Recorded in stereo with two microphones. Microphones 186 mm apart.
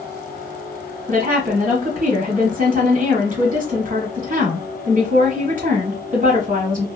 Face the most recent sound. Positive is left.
turn(degrees=-45)  # may be behind; listen again after turning